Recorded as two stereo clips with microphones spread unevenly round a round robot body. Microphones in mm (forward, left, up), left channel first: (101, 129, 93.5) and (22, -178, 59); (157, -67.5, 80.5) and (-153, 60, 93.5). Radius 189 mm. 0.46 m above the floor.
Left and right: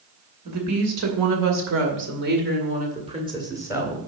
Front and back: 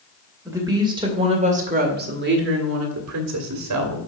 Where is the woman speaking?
120° right, 2.5 m; by 4.0 s 175° left, 2 m.